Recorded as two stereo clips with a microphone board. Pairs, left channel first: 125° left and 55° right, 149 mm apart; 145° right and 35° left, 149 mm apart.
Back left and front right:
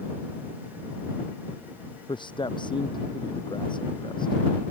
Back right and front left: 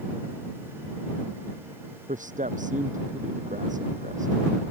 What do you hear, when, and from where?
2.1 s a man speaking: 65° left